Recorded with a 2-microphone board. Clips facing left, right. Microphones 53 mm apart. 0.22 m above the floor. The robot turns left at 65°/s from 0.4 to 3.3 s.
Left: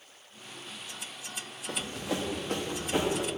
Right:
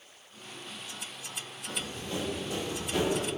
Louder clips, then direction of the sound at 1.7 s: Left 3 dB; 60° left (ahead or behind).